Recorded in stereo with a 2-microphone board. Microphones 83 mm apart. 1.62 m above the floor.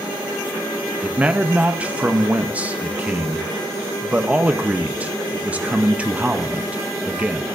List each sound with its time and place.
1.0 s a man speaking: 15° right (ahead or behind), 0.6 m